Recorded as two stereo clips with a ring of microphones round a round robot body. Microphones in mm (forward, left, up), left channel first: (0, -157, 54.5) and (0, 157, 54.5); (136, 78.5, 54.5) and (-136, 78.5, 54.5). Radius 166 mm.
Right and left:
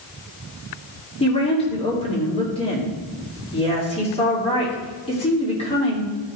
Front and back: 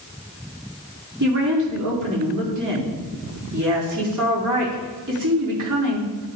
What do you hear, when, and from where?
1.2 s a woman speaking: 160° right, 2.5 m